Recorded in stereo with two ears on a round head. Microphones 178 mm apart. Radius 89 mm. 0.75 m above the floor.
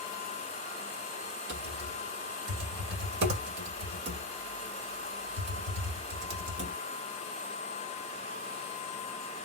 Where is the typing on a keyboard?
55° right (ahead or behind), 2 m.